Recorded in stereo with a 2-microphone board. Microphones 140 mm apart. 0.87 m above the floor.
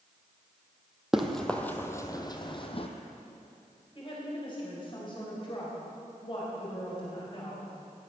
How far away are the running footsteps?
About 1.3 m.